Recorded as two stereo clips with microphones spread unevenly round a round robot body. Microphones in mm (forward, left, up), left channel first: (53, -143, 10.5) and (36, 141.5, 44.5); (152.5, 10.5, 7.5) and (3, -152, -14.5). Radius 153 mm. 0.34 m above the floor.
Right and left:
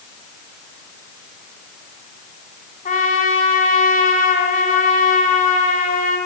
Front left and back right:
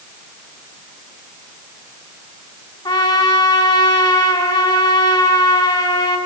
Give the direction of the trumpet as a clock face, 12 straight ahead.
1 o'clock.